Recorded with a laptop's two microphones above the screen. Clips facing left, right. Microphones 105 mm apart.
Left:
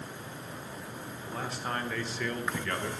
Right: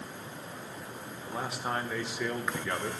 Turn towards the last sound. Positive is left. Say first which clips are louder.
# right 2 dB
turn(degrees=-15)  # may be behind; listen again after turning